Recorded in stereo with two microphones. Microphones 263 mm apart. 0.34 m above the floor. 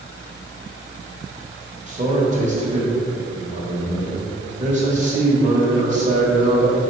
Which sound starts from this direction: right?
A man speaking, at 1.9 s.